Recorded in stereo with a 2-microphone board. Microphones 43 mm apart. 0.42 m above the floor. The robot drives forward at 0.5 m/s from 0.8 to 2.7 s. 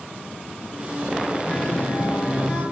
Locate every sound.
1.5 s a guitar: 25° left (ahead or behind), 9.5 m